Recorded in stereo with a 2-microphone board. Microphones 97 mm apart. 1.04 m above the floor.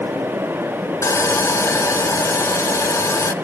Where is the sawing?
30° left (ahead or behind), 0.8 m.